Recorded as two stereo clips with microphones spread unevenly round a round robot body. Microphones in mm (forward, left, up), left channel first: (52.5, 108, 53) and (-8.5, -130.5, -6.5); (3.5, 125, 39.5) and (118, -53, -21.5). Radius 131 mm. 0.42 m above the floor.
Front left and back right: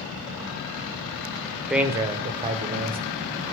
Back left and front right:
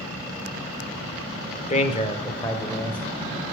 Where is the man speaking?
175° right, 0.9 m; by 3.0 s 145° right, 1.5 m.